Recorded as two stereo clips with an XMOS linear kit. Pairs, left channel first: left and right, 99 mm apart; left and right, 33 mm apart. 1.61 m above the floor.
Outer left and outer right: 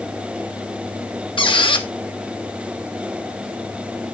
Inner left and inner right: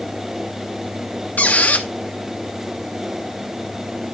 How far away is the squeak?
About 1.2 m.